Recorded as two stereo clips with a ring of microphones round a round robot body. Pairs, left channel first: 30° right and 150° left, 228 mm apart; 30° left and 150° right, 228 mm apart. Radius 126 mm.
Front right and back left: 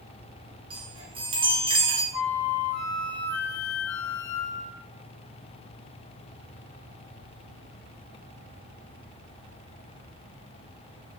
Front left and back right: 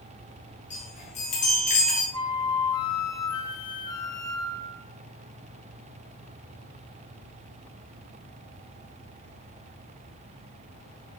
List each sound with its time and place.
0.7 s a chime: 85° left, 2 m
2.1 s a flute: 45° right, 1.2 m